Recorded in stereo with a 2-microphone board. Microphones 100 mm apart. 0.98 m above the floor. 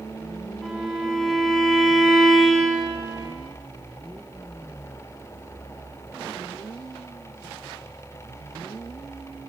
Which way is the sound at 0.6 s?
Centre (ahead or behind).